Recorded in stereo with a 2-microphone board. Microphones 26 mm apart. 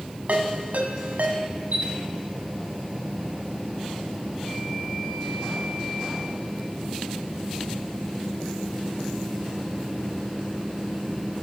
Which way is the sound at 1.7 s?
70° right (ahead or behind).